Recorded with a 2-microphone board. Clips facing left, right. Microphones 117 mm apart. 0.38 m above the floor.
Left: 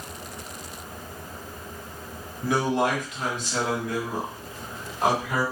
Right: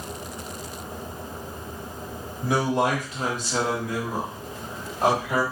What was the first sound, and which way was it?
A man speaking, 35° right (ahead or behind).